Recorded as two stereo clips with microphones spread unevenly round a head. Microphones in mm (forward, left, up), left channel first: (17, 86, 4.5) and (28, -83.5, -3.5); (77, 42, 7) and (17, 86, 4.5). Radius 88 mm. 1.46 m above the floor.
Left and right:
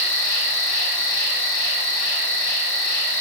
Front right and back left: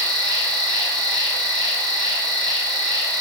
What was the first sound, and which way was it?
An insect, 130° left.